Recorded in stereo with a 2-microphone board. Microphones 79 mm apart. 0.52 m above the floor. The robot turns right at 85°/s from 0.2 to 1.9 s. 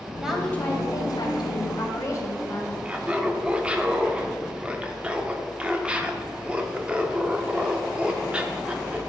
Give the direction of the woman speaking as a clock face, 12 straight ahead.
12 o'clock.